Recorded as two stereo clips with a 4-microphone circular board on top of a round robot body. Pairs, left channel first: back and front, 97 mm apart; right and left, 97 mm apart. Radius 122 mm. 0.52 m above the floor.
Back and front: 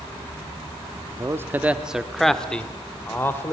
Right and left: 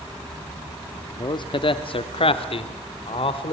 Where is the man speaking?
55° right, 1.1 m; by 3.5 s 115° right, 2 m.